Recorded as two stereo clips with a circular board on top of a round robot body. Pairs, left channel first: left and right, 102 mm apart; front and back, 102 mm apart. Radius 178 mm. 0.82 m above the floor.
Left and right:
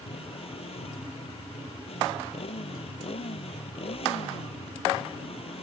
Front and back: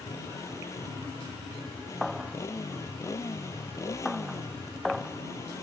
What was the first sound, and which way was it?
A motorcycle, 65° left.